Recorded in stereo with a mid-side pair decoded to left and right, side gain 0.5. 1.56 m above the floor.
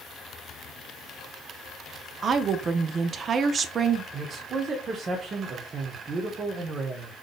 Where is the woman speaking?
45° right, 0.7 m.